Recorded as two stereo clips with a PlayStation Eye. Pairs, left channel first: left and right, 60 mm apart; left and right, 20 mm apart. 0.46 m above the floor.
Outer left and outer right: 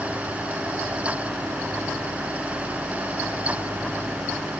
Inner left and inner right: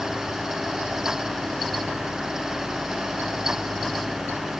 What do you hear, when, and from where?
Only background noise.